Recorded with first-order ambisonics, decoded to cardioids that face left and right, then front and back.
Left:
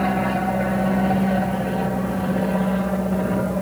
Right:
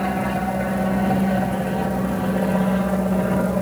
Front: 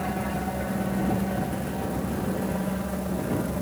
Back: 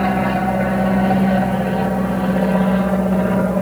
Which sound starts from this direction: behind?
An aircraft, at 0.0 s.